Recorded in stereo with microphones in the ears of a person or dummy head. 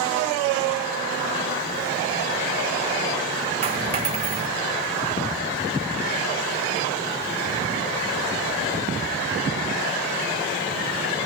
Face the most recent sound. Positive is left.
turn(degrees=-30)  # may be behind; listen again after turning